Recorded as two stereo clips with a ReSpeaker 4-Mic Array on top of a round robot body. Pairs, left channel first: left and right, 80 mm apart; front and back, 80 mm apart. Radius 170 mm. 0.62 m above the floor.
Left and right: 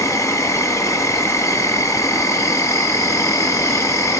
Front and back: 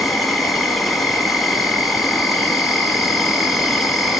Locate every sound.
0.0 s an insect: 90° left, 2.5 m